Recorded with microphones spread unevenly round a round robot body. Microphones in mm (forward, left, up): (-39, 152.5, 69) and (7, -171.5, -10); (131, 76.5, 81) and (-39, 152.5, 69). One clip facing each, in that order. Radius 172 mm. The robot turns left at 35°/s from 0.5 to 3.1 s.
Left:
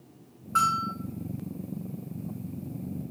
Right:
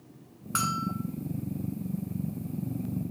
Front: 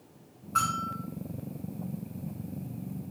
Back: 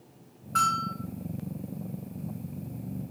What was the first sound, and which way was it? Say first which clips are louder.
A bell: right 3 dB, back 2 dB; 110° right.